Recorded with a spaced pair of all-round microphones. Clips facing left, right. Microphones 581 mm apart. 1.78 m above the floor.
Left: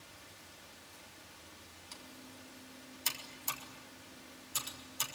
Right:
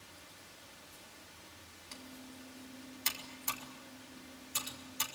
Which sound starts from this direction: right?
Typing on a keyboard, at 1.9 s.